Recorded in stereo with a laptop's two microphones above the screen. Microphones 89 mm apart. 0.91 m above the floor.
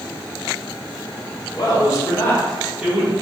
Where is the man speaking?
50° left (ahead or behind), 1.0 m; by 3.1 s 30° right (ahead or behind), 0.7 m.